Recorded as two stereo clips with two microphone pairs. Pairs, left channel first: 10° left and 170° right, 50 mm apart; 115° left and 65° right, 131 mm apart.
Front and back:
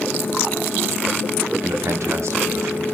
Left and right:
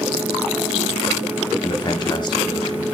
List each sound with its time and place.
1.6 s a man speaking: 170° left, 1.1 m